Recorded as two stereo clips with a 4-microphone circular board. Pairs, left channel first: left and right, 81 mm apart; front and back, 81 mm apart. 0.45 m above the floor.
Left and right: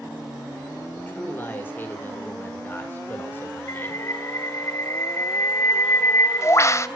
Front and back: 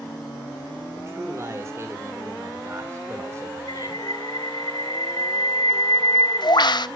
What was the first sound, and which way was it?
A man speaking, 140° left.